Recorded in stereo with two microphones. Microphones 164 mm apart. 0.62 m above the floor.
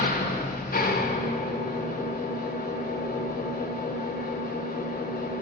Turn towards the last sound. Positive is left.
turn(degrees=65)  # may be behind; listen again after turning